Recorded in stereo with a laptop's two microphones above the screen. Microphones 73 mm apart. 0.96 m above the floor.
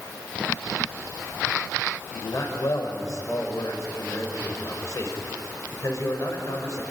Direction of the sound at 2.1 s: 50° left (ahead or behind).